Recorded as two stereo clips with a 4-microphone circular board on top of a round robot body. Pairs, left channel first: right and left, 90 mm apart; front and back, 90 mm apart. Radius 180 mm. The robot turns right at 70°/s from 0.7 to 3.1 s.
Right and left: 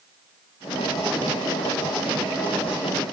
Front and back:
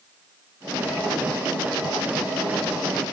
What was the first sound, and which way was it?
Only background noise.